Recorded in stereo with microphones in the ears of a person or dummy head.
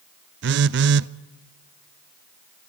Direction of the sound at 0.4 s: 60° right (ahead or behind).